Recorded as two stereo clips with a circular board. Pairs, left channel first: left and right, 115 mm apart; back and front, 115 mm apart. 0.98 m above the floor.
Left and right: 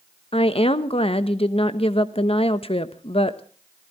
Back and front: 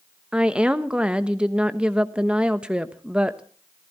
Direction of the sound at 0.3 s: 80° left.